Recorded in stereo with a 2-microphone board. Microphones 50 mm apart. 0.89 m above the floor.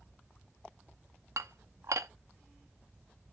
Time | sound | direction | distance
1.4 | dishes clattering | 90° right | 0.7 m